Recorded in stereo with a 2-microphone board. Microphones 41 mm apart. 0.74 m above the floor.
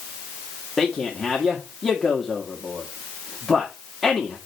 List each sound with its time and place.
0.8 s a man speaking: 5° right (ahead or behind), 1.5 m